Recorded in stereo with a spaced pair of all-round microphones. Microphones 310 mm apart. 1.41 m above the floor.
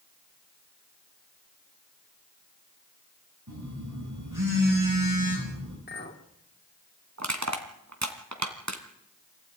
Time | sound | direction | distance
3.5 | a phone buzzing | 85° right | 9.5 m
5.9 | a clink | 30° left (ahead or behind) | 2.5 m
7.2 | crushing | 60° right (ahead or behind) | 2.5 m